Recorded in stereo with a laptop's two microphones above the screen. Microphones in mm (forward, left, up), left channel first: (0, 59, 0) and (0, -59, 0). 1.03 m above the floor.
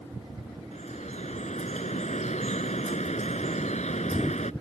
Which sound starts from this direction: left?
Dripping, at 0.7 s.